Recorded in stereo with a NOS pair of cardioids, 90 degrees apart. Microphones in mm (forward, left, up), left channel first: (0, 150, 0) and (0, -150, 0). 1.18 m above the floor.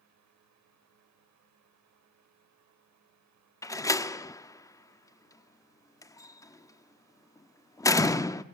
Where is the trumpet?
I don't hear a trumpet.